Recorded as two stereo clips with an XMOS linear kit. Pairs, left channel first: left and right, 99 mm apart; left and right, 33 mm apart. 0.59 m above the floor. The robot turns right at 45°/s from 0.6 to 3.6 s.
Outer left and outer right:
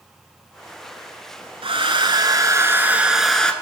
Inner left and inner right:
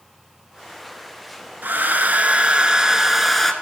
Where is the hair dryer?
75° right, 1.2 m; by 3.5 s 10° left, 1.2 m.